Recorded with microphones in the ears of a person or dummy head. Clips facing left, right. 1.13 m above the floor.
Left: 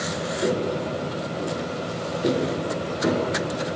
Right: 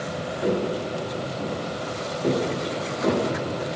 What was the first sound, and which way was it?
Footsteps, 35° left (ahead or behind).